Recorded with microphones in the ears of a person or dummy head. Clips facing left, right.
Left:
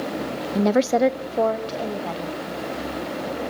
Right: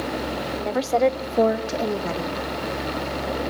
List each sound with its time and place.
0.6 s a woman speaking: 60° left (ahead or behind), 0.8 m; by 2.4 s 35° right (ahead or behind), 2.5 m